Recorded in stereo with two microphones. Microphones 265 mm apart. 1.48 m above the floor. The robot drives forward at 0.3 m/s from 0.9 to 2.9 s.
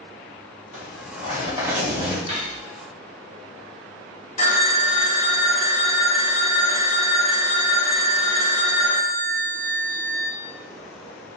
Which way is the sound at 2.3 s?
25° right (ahead or behind).